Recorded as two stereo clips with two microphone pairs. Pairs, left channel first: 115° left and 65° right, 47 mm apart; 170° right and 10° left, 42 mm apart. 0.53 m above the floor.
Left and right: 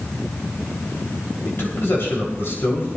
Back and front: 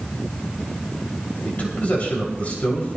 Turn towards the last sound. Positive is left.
turn(degrees=140)